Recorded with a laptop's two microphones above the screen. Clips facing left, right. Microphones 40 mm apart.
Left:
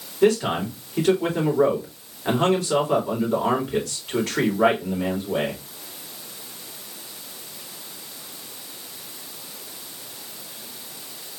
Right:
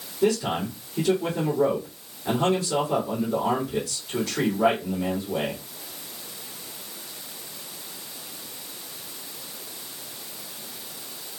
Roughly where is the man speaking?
Left.